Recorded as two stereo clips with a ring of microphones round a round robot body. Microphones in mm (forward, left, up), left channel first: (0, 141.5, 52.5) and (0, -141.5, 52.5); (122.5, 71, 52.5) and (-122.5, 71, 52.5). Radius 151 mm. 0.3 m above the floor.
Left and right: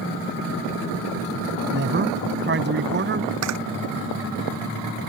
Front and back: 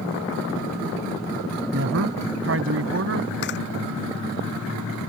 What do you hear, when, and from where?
1.7 s a man speaking: 140° right
3.4 s a camera shutter: 55° right